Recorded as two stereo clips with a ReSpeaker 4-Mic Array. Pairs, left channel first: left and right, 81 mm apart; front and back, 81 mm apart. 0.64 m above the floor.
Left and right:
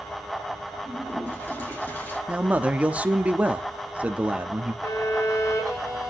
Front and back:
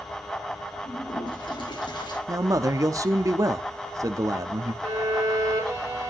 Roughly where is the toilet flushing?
Ahead.